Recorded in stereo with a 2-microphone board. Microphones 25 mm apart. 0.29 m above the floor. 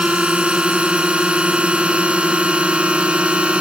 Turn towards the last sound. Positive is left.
turn(degrees=-50)  # may be behind; listen again after turning